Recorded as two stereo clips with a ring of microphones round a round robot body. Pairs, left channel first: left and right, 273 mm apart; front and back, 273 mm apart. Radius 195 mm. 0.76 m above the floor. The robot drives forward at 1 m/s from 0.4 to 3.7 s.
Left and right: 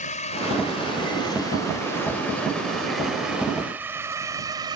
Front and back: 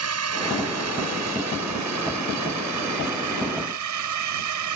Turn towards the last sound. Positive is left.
turn(degrees=-170)